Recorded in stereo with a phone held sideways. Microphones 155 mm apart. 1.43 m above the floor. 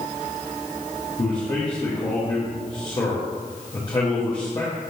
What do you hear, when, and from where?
1.2 s a man speaking: 30° left (ahead or behind), 1.3 m